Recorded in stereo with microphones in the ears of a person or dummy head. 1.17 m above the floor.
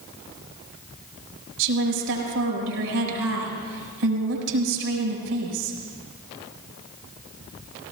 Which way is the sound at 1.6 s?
75° right (ahead or behind).